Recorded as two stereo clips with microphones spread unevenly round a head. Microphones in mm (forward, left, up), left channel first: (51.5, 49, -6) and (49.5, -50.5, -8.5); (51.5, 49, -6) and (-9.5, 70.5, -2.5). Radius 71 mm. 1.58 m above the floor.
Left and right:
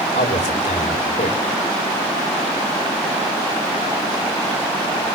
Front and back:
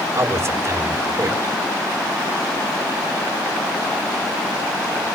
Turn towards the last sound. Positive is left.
turn(degrees=115)